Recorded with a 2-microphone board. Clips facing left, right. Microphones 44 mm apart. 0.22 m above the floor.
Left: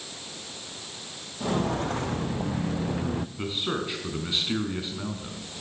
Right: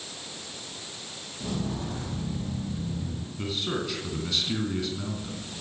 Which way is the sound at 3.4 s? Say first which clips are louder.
Left 1 dB; 20° left (ahead or behind).